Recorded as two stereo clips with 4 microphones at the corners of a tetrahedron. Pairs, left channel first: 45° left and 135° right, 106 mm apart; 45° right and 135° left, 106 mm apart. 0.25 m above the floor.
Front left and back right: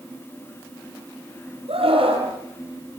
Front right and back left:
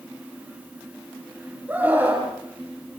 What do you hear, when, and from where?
1.7 s a scream: 150° right, 7.5 m